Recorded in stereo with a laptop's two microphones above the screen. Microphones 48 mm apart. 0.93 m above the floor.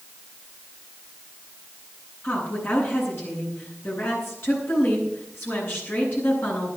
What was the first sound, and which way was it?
A woman speaking, 50° left (ahead or behind).